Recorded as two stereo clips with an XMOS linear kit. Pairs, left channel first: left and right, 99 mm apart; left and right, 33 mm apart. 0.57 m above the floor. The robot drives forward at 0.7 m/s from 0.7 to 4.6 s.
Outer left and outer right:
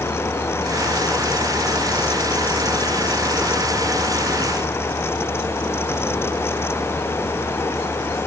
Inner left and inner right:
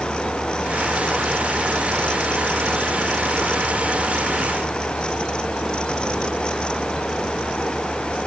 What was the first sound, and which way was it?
Only background noise.